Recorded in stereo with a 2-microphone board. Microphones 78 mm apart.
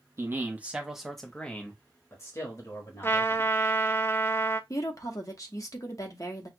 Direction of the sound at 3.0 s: 30° left (ahead or behind).